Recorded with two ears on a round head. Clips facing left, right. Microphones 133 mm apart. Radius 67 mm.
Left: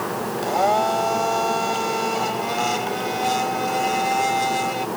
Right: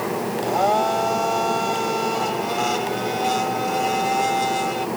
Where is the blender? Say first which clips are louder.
Even; centre (ahead or behind).